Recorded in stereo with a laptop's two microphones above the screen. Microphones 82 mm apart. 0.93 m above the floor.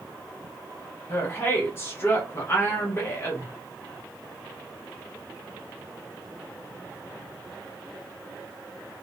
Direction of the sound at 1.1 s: 30° left (ahead or behind).